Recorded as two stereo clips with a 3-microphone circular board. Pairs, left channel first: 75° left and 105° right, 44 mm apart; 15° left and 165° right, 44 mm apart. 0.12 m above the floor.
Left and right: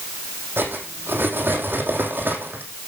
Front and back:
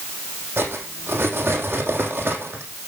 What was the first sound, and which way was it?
Cutlery clinking, 135° right.